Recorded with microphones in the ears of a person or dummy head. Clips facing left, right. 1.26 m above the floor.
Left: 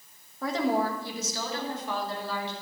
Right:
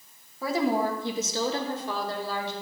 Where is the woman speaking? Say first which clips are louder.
Right 1 dB; 5° right (ahead or behind), 1.7 m; by 2.5 s 40° right (ahead or behind), 3.5 m.